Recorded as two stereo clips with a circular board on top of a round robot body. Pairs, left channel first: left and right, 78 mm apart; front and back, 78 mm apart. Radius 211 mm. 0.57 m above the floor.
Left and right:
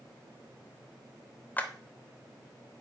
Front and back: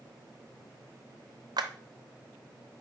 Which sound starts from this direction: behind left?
A clap, at 1.6 s.